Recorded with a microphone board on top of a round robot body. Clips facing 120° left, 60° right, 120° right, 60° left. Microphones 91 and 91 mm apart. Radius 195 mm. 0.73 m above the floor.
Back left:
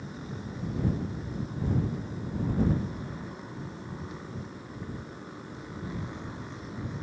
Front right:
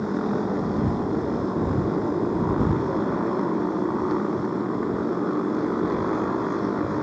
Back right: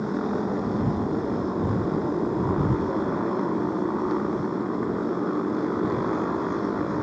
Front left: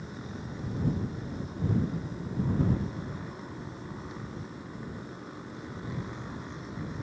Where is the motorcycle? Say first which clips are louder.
Front right 16 dB, back right 15 dB; 90° right.